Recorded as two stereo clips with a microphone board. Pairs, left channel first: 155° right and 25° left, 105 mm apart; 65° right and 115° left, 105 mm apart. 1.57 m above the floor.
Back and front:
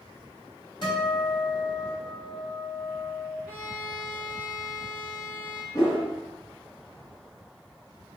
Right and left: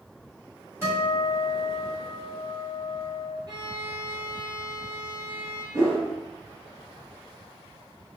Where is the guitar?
170° left, 1.7 m.